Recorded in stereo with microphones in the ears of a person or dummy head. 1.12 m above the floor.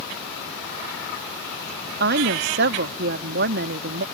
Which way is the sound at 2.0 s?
55° right (ahead or behind).